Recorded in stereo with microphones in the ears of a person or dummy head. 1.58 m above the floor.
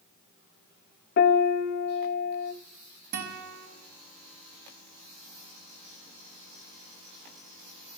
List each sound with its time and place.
1.2 s a piano: 50° left (ahead or behind), 1.1 m
3.1 s a guitar: 55° right (ahead or behind), 5 m